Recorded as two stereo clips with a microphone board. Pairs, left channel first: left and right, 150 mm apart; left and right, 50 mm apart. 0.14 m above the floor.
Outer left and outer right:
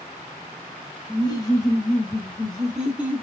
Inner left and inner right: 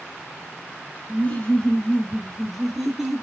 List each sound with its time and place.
1.1 s laughter: 30° left (ahead or behind), 1.4 m; by 3.2 s 15° right (ahead or behind), 1.1 m